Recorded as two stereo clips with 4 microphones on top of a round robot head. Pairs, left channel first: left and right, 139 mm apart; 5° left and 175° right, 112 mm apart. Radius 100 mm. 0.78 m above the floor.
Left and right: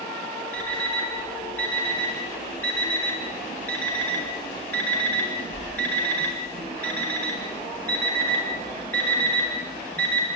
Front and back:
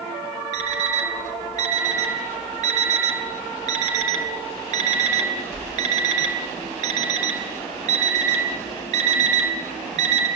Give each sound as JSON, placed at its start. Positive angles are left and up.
{"t": 0.5, "sound": "an alarm clock", "azimuth_deg": 170, "distance_m": 1.5}